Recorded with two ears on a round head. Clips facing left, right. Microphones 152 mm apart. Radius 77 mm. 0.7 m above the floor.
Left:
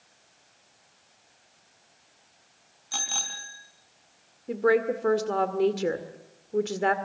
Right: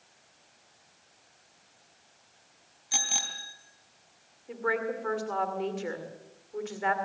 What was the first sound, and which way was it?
A bicycle bell, 15° right (ahead or behind).